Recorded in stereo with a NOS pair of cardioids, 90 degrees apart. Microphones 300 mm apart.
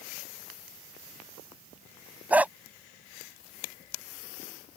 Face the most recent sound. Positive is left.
turn(degrees=-5)